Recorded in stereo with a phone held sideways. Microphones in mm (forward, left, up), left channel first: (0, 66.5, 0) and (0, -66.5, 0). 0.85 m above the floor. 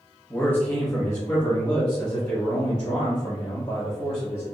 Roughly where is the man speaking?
Centre.